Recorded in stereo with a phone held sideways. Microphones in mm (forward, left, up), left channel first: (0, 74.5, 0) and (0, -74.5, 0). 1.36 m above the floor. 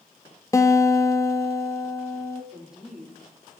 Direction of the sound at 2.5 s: 5° right (ahead or behind).